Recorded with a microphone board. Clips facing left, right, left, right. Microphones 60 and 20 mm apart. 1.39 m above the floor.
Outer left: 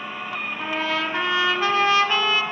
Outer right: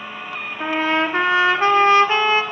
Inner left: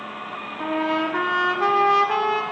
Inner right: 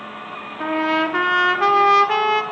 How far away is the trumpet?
About 1.8 m.